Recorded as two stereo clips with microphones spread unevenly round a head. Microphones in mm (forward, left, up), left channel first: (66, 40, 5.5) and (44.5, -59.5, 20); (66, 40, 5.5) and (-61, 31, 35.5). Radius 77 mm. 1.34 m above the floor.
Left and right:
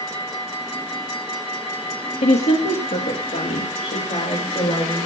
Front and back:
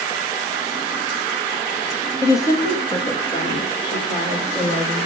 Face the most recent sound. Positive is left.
turn(degrees=55)